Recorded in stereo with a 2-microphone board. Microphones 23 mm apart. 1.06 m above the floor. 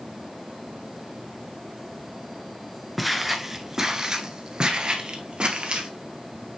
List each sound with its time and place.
3.0 s footsteps: centre (ahead or behind), 1.0 m; by 5.9 s 55° right (ahead or behind), 1.7 m